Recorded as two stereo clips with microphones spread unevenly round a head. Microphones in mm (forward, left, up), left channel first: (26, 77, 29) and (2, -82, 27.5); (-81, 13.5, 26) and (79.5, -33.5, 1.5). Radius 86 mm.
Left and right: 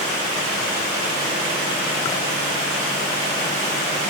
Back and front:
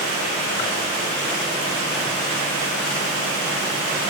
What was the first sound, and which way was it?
Only background noise.